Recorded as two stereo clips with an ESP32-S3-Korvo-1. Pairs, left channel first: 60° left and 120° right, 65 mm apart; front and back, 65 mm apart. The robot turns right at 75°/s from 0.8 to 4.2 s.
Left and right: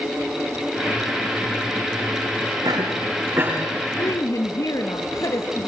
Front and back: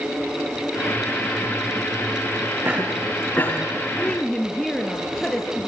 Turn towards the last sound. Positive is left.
turn(degrees=85)